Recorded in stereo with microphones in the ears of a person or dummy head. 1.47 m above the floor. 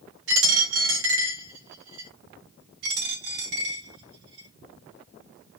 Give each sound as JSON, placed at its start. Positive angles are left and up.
{"t": 0.3, "sound": "a dropped coin", "side_deg": -75, "distance_m": 2.5}
{"t": 2.8, "sound": "a dropped coin", "side_deg": -75, "distance_m": 3.5}